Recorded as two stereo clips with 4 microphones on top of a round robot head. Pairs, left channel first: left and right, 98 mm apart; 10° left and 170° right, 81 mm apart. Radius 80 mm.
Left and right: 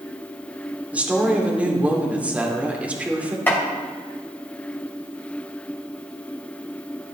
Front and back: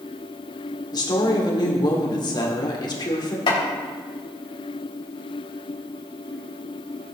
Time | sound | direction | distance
0.9 | a woman speaking | 15° right | 2.5 m
3.5 | chopping | 20° left | 3.5 m